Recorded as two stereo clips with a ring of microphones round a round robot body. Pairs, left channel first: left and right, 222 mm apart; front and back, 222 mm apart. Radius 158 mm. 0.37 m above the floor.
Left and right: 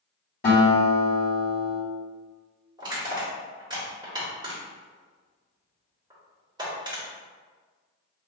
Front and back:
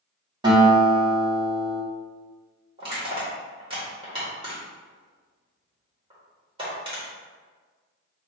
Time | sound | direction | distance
0.4 | a guitar | 120° left | 1.9 m
2.8 | crushing | 140° right | 1.5 m